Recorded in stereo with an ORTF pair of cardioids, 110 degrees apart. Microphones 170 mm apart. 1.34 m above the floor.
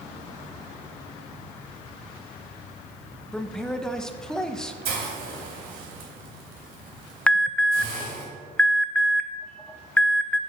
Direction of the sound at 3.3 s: 5° left.